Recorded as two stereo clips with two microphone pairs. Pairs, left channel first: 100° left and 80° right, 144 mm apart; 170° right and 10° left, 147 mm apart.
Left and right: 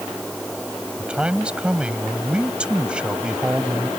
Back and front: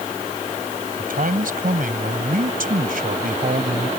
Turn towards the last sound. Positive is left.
turn(degrees=5)